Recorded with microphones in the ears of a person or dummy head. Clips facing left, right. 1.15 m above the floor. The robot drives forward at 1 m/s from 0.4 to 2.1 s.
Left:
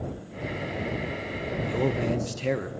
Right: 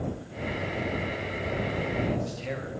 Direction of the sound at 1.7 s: 70° left (ahead or behind).